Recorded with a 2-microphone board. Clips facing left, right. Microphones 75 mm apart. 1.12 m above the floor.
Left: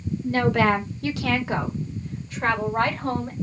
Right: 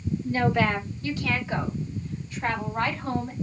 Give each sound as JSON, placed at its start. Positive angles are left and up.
{"t": 0.2, "sound": "a woman speaking", "side_deg": 60, "distance_m": 1.4}